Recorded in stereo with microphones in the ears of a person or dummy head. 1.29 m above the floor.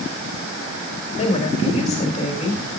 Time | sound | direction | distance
1.2 | a woman speaking | 40° left (ahead or behind) | 2 m